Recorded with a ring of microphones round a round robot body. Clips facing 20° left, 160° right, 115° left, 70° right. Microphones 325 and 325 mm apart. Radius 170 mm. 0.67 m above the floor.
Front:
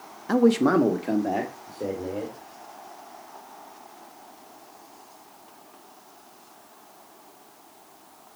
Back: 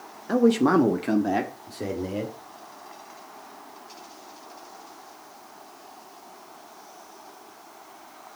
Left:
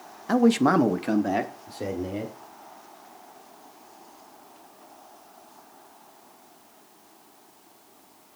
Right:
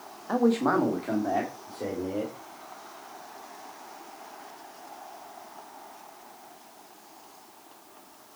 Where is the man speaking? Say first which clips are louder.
Even, left 4 dB; 95° left, 0.8 m; by 2.3 s 160° left, 2 m.